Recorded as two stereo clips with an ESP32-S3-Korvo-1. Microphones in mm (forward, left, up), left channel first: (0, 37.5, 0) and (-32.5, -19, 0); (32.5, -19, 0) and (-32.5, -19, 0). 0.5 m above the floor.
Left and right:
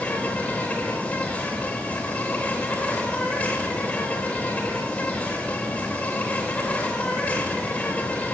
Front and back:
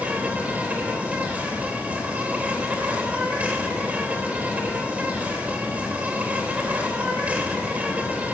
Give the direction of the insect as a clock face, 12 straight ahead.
8 o'clock.